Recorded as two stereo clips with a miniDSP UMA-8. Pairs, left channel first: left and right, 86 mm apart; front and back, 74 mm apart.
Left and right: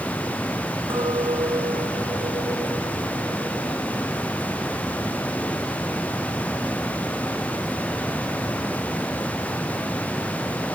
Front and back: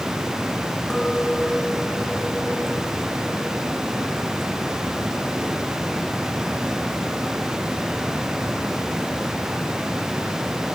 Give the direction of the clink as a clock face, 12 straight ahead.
3 o'clock.